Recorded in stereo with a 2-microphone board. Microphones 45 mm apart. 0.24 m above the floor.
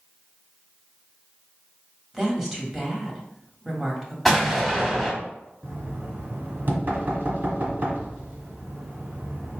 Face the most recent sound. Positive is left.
turn(degrees=-45)  # may be behind; listen again after turning